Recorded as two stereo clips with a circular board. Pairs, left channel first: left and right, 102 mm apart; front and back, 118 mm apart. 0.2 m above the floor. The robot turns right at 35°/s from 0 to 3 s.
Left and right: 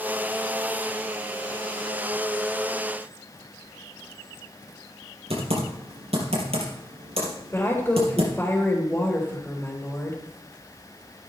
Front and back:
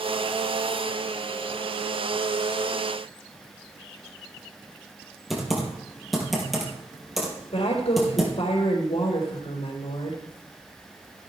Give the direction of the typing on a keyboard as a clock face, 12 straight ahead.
3 o'clock.